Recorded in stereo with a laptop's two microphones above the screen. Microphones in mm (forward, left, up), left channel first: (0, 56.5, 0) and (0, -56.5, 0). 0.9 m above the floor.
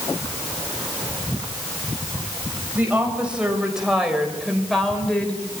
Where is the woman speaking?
15° right (ahead or behind), 4 m; by 5.4 s 10° left (ahead or behind), 3 m.